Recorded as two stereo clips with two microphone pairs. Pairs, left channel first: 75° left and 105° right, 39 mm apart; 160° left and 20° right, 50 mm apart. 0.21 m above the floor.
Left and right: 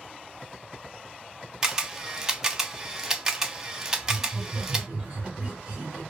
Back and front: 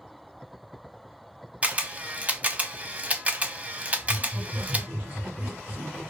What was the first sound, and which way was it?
A camera shutter, 40° right.